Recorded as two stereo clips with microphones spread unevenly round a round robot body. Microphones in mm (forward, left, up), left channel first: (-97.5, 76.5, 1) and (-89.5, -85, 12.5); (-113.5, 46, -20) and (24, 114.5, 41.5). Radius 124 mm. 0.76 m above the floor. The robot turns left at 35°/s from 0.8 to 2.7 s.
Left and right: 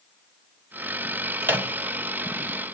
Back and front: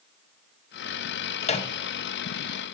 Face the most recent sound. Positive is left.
turn(degrees=150)